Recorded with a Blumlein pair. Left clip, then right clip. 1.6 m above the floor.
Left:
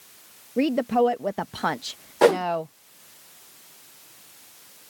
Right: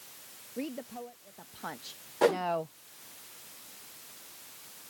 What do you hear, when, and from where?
0.6 s a woman speaking: 35° left; by 2.7 s 80° left
2.2 s a whoosh: 65° left